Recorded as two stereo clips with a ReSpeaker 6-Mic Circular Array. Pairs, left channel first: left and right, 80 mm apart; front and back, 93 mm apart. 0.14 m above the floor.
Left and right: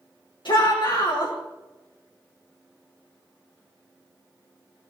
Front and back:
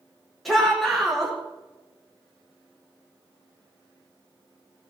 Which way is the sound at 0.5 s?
90° left.